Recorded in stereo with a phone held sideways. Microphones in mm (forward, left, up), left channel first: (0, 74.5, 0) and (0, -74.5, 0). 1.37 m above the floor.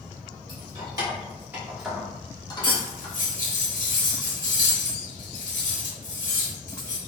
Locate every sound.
0.5 s keys jangling: 30° right (ahead or behind), 1.4 m; by 3.1 s 50° left (ahead or behind), 0.8 m
2.6 s cutlery clinking: 60° left (ahead or behind), 0.8 m